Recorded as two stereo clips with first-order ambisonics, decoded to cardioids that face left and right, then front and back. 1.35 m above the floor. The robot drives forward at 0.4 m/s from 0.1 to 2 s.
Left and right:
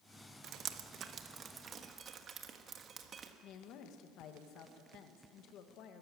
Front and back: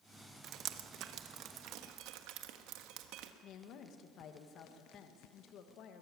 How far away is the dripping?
About 0.9 m.